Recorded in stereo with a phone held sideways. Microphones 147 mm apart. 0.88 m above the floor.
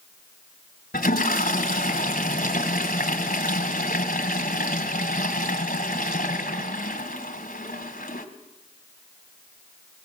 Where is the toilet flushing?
75° left (ahead or behind), 2.0 m.